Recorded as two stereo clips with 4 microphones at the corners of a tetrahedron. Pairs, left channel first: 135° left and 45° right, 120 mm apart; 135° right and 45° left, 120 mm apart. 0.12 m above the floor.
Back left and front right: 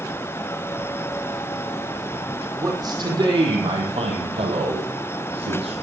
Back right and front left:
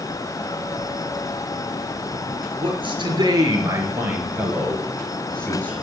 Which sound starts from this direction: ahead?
A man speaking, at 2.6 s.